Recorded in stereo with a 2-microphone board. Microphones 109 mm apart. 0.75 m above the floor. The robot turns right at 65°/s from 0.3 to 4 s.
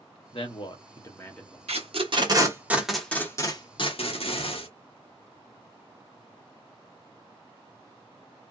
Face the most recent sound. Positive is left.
turn(degrees=65)  # may be behind; listen again after turning